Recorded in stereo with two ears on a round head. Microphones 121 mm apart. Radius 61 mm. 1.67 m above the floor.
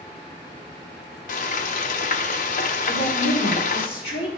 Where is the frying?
65° left (ahead or behind), 0.8 m.